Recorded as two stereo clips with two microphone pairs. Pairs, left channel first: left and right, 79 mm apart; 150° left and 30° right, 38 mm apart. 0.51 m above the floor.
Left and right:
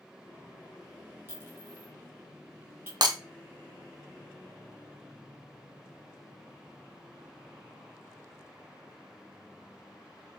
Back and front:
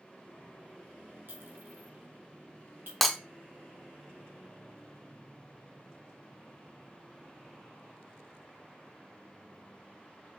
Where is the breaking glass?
120° right, 0.6 m.